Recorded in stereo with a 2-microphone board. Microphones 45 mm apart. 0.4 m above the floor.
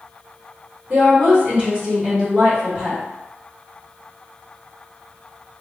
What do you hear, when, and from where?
0.9 s a woman speaking: 40° right (ahead or behind), 1.5 m; by 3.0 s 15° right (ahead or behind), 1.7 m